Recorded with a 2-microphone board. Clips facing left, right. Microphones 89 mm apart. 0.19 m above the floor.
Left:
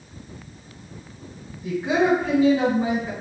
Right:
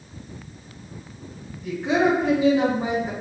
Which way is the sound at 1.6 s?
15° left (ahead or behind).